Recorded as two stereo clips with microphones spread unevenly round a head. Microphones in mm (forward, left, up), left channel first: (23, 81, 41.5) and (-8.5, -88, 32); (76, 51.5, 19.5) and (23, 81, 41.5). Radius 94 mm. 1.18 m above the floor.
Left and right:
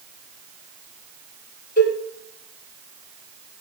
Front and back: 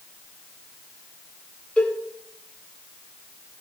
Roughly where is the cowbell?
Ahead left.